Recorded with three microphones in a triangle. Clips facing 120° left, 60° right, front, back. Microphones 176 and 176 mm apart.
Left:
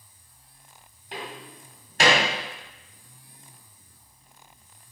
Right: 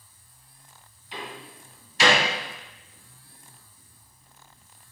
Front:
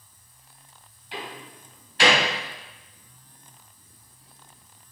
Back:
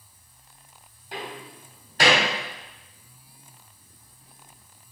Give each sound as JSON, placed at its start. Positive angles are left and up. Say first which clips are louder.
{"t": 1.1, "sound": "a door slam", "louder": "left 1 dB, back 1 dB", "azimuth_deg": 140, "distance_m": 2.5}